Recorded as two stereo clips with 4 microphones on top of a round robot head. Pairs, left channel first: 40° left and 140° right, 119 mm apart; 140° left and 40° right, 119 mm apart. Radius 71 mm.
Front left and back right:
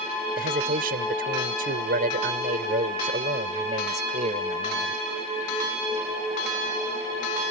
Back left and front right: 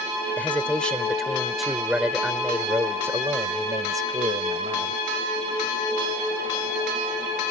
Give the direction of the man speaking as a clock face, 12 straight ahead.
5 o'clock.